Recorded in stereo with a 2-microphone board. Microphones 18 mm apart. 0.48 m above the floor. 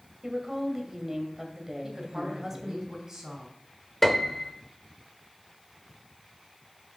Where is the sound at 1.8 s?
25° right (ahead or behind), 3 m.